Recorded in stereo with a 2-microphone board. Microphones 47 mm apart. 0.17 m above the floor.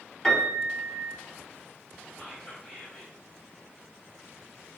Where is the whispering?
20° left (ahead or behind), 1.8 m.